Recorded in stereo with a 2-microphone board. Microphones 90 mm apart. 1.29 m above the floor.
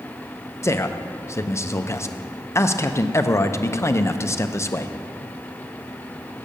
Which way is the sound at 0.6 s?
30° left (ahead or behind).